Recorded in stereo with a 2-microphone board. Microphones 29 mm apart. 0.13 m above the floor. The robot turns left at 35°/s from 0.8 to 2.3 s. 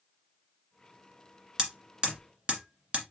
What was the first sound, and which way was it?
Hammering, 25° right (ahead or behind).